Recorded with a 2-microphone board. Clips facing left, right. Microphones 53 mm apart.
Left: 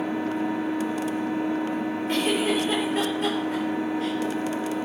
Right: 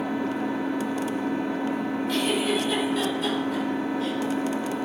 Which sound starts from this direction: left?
A giggle, at 2.1 s.